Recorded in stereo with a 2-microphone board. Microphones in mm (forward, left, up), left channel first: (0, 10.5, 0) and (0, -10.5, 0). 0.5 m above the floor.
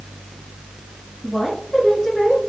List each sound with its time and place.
1.2 s a woman speaking: 15° left (ahead or behind), 2.5 m